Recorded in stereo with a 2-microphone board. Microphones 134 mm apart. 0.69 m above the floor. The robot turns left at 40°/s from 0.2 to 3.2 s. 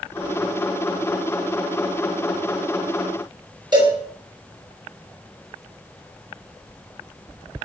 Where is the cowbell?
30° right (ahead or behind), 4 m.